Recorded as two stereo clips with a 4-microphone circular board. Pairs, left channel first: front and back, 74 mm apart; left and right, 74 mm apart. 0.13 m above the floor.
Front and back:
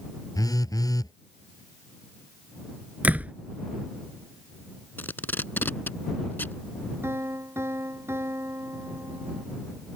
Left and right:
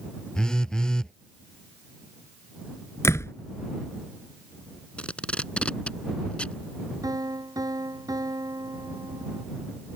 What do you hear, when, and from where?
0.3 s a phone buzzing: 10° left
3.0 s a door slam: 120° left
5.0 s tape being pulled: 30° left
7.0 s a piano: 125° right